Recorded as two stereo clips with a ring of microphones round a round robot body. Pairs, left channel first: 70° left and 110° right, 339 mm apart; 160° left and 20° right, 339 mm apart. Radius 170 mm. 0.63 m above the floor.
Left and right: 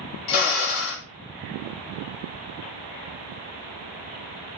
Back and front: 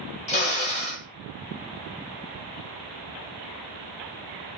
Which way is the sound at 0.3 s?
90° left.